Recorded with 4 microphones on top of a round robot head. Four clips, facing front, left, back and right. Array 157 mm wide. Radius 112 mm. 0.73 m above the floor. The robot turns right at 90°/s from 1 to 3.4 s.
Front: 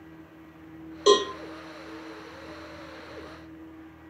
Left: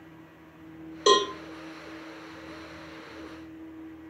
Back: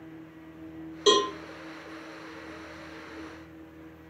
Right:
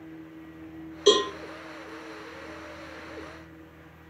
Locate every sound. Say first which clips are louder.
1.1 s a cowbell: even, front 3 dB; 95° left, 1.5 m; by 1.3 s 115° left, 1.5 m